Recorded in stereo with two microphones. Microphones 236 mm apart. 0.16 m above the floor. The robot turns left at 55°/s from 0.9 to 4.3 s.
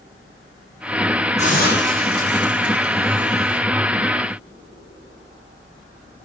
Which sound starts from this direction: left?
A hiss, at 1.4 s.